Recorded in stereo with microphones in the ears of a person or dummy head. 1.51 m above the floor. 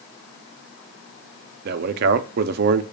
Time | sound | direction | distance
1.6 | a man speaking | 55° right (ahead or behind) | 0.6 m